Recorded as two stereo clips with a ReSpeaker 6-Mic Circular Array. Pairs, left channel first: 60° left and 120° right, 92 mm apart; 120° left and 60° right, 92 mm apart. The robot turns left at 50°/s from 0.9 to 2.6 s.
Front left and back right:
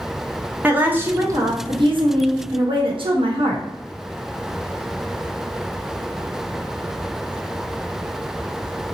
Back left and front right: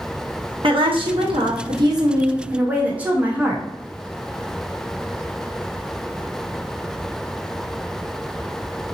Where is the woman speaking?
50° right, 0.8 m; by 3.6 s 135° right, 0.8 m.